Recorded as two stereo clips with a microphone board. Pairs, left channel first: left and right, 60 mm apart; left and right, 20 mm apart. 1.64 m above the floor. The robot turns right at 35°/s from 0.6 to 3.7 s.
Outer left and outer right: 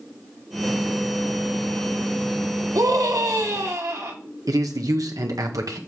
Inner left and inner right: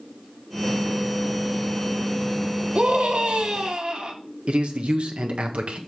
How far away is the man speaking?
About 1.5 m.